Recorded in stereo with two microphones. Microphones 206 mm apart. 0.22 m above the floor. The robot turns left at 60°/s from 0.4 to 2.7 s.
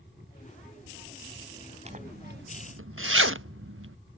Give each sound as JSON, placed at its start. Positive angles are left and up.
{"t": 1.9, "sound": "a zipper", "side_deg": -30}